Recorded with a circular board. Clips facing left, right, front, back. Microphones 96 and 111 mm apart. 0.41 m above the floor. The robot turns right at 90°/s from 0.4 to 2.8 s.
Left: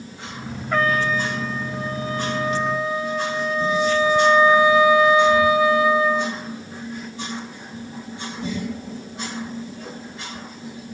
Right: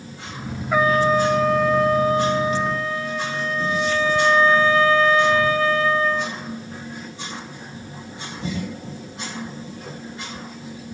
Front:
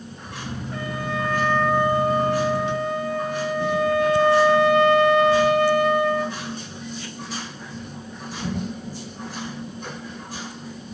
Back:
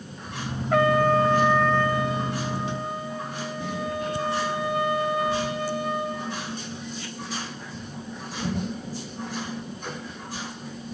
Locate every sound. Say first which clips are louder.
0.7 s a trumpet: right 4 dB, back 11 dB; 175° right, 0.8 m; by 6.4 s 15° left, 0.8 m